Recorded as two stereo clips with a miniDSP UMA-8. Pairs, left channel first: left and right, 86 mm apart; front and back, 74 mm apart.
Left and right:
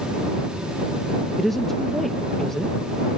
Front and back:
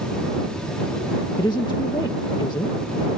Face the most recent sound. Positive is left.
turn(degrees=5)